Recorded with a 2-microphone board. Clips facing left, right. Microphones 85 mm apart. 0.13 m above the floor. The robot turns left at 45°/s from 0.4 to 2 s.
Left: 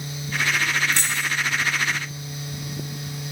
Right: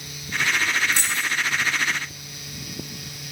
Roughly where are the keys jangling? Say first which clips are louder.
Even; centre.